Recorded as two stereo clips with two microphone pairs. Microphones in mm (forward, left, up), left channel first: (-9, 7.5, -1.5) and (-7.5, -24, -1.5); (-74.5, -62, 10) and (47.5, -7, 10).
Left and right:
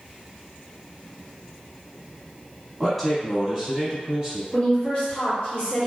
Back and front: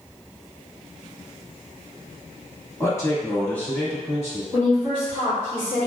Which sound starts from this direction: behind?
A man speaking, at 2.8 s.